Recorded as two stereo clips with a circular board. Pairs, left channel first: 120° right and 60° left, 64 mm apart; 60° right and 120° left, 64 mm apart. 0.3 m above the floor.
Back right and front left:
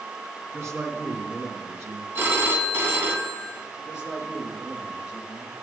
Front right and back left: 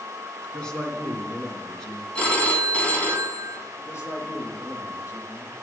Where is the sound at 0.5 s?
20° left, 3 m.